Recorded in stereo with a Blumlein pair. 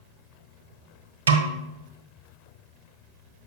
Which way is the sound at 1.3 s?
65° right.